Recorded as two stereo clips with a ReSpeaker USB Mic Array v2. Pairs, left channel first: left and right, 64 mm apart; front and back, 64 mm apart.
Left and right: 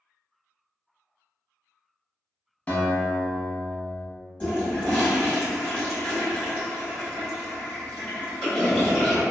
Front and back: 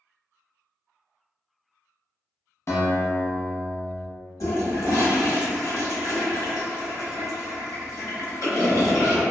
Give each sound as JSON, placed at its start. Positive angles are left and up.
{"t": 2.7, "sound": "a guitar", "azimuth_deg": 30, "distance_m": 0.7}
{"t": 4.4, "sound": "a toilet flushing", "azimuth_deg": 20, "distance_m": 1.6}